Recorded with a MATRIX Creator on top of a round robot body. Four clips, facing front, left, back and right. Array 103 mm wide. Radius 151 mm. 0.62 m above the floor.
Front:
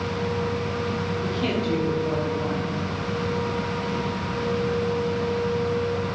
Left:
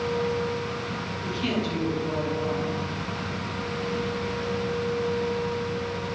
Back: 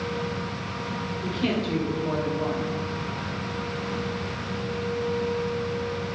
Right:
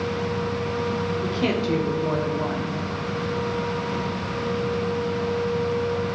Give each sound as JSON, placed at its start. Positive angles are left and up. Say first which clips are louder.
{"t": 1.2, "sound": "a woman speaking", "louder": "right 2 dB, back 1 dB", "azimuth_deg": -90, "distance_m": 3.0}